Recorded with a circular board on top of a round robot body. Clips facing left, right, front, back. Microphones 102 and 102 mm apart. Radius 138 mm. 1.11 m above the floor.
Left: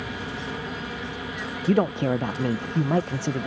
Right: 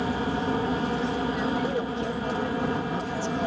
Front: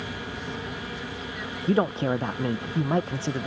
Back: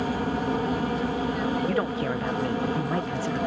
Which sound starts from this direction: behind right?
An aircraft, at 0.0 s.